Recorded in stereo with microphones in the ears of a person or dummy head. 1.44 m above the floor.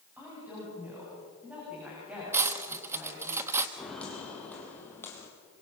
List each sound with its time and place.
0.2 s a woman speaking: 10° right (ahead or behind), 9 m
2.3 s cutlery clinking: 10° right (ahead or behind), 1.3 m
3.8 s footsteps: centre (ahead or behind), 4.5 m; by 5.3 s 10° left (ahead or behind), 3.5 m